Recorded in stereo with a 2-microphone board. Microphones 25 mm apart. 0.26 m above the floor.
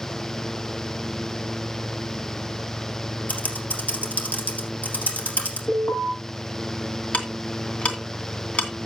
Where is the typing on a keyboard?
80° left, 3 m.